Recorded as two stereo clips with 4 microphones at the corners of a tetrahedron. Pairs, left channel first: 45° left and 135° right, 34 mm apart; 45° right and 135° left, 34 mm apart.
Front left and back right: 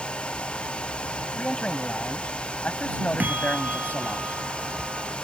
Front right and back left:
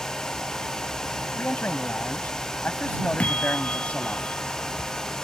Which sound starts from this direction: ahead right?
A man speaking, at 1.4 s.